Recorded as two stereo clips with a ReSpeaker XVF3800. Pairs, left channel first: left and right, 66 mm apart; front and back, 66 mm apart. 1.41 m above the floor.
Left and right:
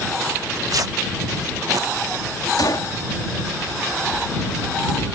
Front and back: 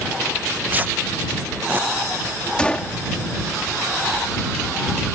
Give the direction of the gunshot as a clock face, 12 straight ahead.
10 o'clock.